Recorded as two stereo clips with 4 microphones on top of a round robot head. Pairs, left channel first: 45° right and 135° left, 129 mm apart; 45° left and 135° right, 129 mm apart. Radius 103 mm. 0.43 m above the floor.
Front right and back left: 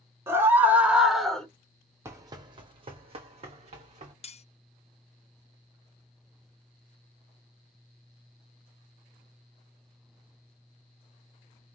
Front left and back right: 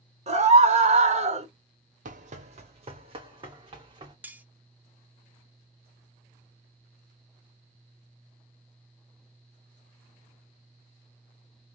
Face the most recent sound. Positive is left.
turn(degrees=-60)